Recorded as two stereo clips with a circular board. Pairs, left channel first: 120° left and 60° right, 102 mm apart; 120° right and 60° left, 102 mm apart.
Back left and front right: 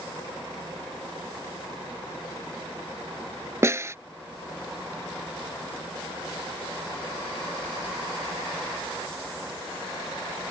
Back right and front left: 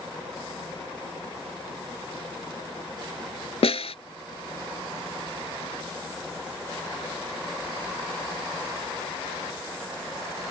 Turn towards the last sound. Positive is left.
turn(degrees=-120)